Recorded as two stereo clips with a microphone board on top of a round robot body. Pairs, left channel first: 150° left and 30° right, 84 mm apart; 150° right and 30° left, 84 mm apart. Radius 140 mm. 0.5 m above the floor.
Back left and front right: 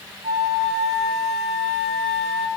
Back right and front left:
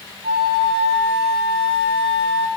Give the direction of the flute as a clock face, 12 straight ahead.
12 o'clock.